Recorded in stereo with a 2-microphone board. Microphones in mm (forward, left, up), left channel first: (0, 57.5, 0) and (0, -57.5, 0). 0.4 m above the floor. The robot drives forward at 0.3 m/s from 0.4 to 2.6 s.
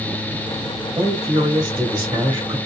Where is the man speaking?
25° right (ahead or behind), 1.4 m; by 2.6 s 30° right (ahead or behind), 1.3 m.